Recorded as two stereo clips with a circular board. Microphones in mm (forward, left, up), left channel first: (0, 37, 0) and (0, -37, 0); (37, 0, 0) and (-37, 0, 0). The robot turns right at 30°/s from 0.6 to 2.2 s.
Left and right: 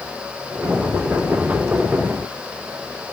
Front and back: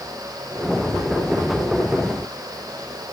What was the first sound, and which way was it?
Only background noise.